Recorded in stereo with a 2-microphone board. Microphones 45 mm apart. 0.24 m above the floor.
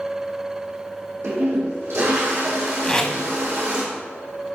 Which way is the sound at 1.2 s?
85° right.